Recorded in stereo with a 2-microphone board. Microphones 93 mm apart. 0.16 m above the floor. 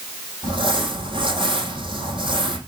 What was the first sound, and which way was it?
Crumpling, 65° right (ahead or behind).